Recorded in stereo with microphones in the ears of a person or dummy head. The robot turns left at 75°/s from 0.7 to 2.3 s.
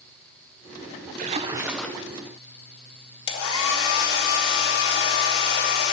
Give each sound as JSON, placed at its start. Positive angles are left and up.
{"t": 1.2, "sound": "a splash", "azimuth_deg": -135, "distance_m": 1.0}
{"t": 3.3, "sound": "a hair dryer", "side_deg": 75, "distance_m": 2.5}